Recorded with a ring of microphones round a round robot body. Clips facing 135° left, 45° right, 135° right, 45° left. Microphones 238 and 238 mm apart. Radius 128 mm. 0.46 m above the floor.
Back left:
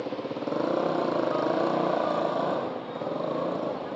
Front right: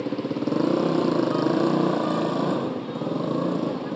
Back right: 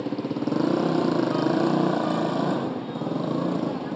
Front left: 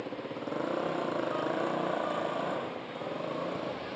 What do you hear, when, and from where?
0.0 s a motorcycle: 100° right